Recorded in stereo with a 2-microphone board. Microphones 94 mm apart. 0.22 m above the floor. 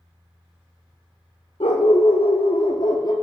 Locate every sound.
1.6 s a dog barking: 80° left, 1.9 m; by 3.1 s 40° left (ahead or behind), 1.3 m